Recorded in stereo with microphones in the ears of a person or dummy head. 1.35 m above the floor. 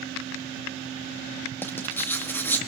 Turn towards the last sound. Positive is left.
turn(degrees=10)  # may be behind; listen again after turning